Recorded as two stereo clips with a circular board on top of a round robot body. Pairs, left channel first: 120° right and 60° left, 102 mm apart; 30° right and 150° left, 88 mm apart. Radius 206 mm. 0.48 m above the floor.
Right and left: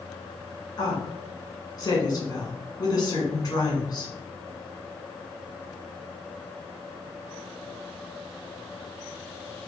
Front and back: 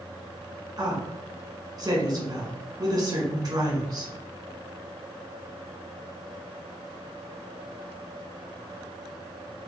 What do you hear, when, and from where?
0.8 s a woman speaking: 170° right, 2 m